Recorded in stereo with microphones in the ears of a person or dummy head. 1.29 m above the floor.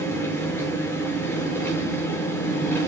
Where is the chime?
I don't hear a chime.